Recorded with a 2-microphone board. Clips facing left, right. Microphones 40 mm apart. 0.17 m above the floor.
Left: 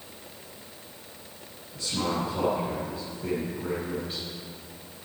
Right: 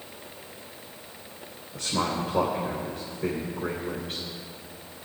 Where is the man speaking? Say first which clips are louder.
Right 1 dB; 55° right (ahead or behind), 3.5 m.